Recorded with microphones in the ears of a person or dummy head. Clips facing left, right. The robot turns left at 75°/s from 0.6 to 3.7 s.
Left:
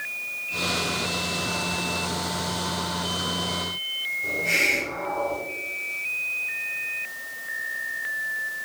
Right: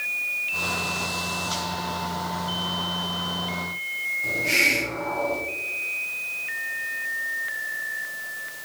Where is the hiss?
20° left (ahead or behind), 2 m.